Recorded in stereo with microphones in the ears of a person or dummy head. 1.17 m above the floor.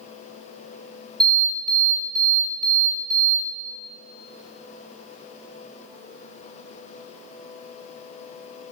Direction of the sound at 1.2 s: 15° right (ahead or behind).